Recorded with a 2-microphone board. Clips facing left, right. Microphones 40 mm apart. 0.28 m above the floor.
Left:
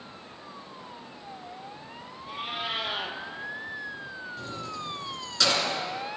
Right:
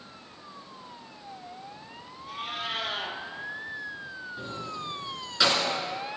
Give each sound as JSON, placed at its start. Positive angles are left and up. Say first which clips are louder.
{"t": 2.3, "sound": "a cat meowing", "louder": "left 1 dB", "side_deg": 15, "distance_m": 1.4}
{"t": 4.4, "sound": "keys jangling", "louder": "right 1 dB", "side_deg": -15, "distance_m": 2.5}